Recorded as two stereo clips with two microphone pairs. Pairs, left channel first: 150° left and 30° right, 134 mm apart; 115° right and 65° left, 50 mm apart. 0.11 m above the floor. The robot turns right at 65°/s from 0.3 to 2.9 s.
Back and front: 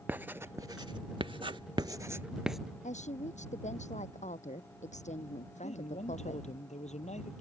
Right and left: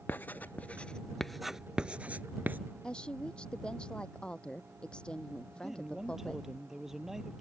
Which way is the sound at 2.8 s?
170° left.